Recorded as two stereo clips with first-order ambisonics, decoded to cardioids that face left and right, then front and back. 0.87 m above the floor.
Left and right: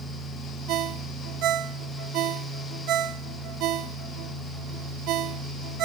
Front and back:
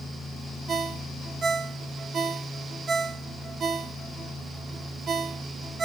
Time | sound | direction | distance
0.7 | a ringtone | 115° right | 1.0 m